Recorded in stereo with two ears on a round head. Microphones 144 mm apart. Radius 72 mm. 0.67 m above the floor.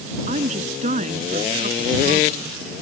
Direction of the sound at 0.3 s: 45° right (ahead or behind).